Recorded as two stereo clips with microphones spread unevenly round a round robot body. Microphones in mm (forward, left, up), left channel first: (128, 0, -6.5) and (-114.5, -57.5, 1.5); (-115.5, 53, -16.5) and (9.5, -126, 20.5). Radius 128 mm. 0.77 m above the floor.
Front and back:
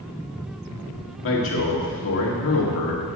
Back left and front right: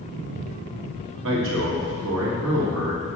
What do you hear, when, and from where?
1.2 s a man speaking: 15° right, 1.9 m